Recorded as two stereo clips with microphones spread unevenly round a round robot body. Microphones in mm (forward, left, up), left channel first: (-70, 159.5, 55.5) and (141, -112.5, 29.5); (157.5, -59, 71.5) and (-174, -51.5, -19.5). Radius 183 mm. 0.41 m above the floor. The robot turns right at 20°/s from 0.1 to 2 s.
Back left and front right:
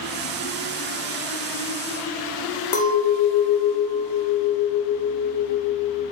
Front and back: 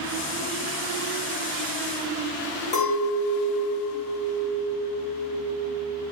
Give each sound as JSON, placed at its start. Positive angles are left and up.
{"t": 2.7, "sound": "a clink", "azimuth_deg": 75, "distance_m": 0.8}